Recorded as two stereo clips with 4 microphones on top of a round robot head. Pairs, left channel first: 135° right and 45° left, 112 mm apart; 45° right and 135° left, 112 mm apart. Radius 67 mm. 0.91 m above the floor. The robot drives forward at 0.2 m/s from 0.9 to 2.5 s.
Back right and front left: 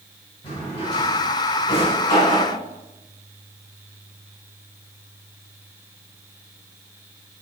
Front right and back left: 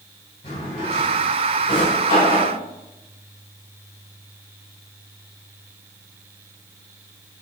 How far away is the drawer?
About 2.0 m.